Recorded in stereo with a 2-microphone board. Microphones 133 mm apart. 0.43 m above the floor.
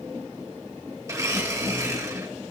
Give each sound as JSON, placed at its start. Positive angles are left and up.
{"t": 1.1, "sound": "a blender", "side_deg": -25, "distance_m": 2.0}